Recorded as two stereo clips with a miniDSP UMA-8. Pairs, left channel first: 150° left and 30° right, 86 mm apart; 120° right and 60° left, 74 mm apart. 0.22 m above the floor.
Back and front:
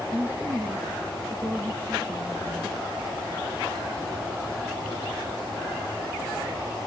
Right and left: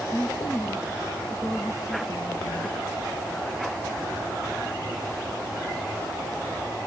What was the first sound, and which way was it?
A woman speaking, 85° right.